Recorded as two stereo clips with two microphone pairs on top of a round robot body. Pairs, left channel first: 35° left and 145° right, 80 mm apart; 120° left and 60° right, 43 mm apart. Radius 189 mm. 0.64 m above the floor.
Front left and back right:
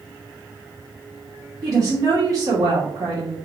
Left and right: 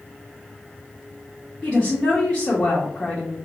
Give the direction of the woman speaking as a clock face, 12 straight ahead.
6 o'clock.